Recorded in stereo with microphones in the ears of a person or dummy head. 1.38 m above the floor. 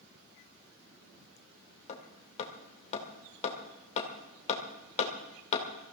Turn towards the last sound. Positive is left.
turn(degrees=40)  # may be behind; listen again after turning